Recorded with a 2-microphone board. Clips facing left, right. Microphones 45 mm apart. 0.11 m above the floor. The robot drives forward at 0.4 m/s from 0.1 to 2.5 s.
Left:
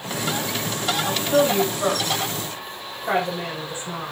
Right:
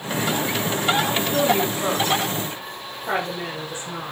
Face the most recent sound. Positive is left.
turn(degrees=15)  # may be behind; listen again after turning